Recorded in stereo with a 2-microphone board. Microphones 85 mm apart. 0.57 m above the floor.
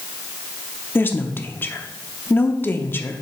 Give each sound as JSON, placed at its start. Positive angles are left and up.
{"t": 0.9, "sound": "a woman speaking", "side_deg": 25, "distance_m": 0.7}